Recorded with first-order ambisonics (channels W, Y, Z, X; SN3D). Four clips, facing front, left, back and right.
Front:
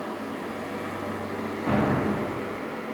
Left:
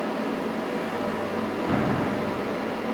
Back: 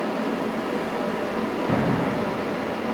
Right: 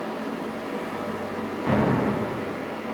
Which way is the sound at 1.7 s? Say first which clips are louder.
Right 5 dB, front 1 dB; 80° right.